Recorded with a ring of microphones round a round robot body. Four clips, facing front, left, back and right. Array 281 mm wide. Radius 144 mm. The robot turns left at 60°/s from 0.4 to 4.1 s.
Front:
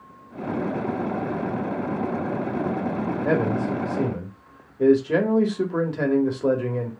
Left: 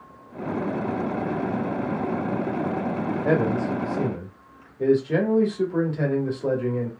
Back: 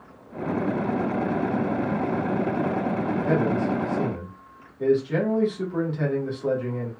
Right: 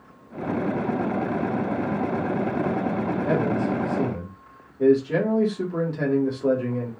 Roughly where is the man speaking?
Ahead left.